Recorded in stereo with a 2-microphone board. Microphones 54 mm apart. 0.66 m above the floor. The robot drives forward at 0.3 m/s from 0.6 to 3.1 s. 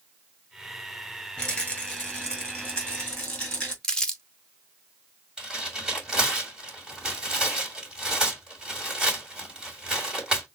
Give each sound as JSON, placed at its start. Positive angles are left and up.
{"t": 1.4, "sound": "a rattle", "side_deg": 15, "distance_m": 2.0}
{"t": 3.8, "sound": "crumpling", "side_deg": 10, "distance_m": 0.9}
{"t": 5.4, "sound": "tearing paper", "side_deg": -15, "distance_m": 2.5}